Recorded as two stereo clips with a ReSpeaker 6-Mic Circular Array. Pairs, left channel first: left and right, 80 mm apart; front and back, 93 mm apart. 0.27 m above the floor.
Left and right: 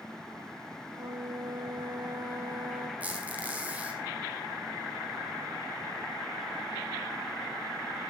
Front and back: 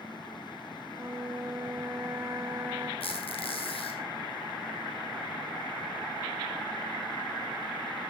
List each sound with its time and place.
0.9 s a flute: 120° right, 3.5 m
3.0 s a squeak: 20° right, 4.5 m